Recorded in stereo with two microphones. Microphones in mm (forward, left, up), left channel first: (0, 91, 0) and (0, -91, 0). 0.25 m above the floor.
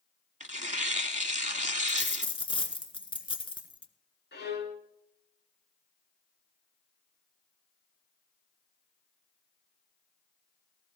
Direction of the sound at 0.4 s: 40° right (ahead or behind).